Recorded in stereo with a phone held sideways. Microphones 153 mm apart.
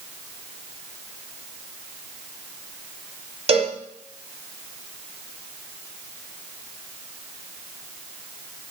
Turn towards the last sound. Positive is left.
turn(degrees=-40)  # may be behind; listen again after turning